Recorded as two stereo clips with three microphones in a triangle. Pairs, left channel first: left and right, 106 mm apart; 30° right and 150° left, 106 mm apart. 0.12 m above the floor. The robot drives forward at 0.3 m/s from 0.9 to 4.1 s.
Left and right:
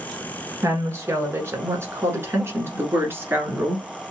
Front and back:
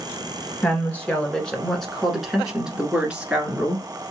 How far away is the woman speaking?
About 1.3 m.